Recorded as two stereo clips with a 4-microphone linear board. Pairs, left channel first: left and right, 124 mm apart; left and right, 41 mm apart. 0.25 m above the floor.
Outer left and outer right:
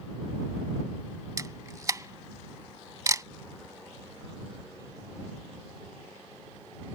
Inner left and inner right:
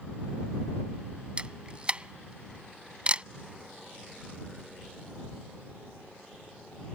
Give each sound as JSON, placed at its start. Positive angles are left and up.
{"t": 1.4, "sound": "a camera shutter", "side_deg": -30}